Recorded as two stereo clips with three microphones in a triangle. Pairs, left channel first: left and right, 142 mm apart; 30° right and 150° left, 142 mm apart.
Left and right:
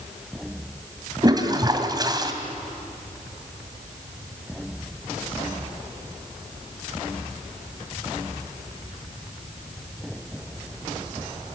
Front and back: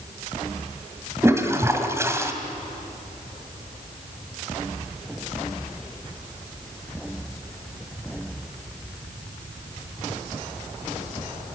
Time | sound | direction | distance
1.2 | a toilet flushing | 145° right | 1.9 m